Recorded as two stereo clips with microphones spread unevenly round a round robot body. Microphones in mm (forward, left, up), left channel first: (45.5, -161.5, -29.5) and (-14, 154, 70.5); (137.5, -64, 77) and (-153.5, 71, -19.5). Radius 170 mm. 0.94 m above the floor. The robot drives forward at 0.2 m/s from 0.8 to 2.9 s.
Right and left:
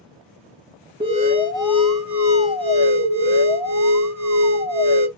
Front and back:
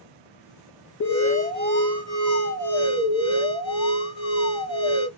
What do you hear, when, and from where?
1.0 s an alarm: 30° left, 2.5 m; by 5.1 s 40° left, 2 m